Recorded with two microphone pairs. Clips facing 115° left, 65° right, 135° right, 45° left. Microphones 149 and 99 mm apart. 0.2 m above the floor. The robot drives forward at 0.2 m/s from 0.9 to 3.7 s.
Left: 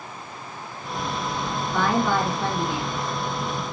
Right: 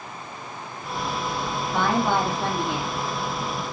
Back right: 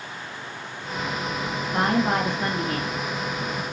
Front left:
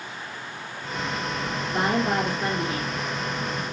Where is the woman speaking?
125° right, 2.5 m; by 3.0 s 130° right, 3 m.